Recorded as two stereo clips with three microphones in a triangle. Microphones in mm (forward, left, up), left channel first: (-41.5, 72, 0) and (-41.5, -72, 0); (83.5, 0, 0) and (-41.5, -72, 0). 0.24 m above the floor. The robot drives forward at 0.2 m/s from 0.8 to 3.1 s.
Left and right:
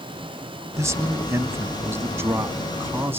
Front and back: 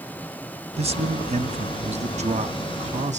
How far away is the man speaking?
About 1.2 m.